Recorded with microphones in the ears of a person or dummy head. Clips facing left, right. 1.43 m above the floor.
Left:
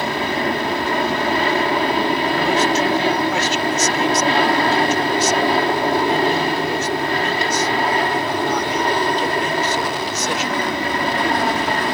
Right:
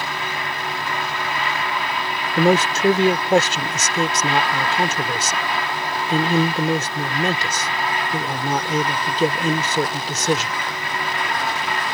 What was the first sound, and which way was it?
An aircraft, 35° left (ahead or behind).